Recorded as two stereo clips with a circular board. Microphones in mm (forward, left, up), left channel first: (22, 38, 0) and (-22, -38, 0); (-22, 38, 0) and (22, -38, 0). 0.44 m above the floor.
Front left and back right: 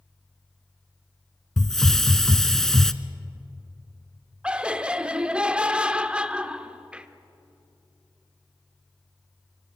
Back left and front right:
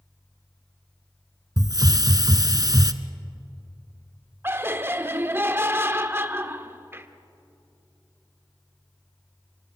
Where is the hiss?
25° right, 0.7 m.